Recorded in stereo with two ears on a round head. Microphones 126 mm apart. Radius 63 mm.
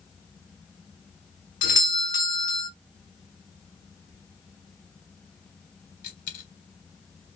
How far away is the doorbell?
About 1.2 m.